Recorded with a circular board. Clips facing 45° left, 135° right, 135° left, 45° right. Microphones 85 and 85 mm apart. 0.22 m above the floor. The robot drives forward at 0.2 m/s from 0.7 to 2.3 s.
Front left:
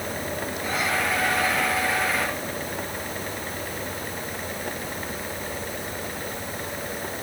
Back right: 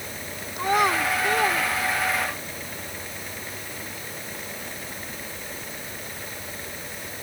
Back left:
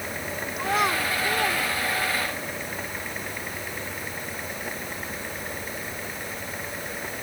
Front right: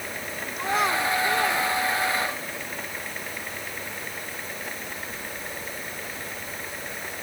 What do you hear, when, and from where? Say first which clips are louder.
0.6 s a child speaking: back right 6 dB, even; 140° right; by 2.5 s 145° right